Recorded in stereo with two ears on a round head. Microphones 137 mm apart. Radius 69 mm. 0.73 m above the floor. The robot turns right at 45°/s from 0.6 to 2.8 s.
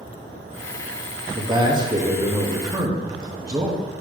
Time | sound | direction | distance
1.4 | a man speaking | 20° right (ahead or behind) | 1.1 m